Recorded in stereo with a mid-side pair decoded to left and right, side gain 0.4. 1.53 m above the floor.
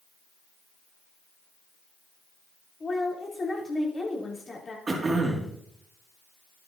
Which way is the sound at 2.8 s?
35° left.